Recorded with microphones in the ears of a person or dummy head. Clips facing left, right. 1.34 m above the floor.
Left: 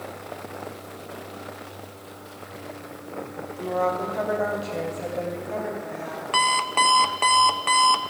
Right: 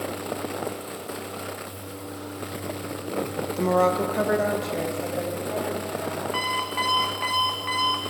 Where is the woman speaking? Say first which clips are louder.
Right 4 dB; 70° right (ahead or behind), 0.8 m; by 6.2 s 10° left (ahead or behind), 3 m.